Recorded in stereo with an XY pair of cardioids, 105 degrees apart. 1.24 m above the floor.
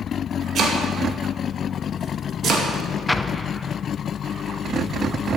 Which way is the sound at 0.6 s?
60° right.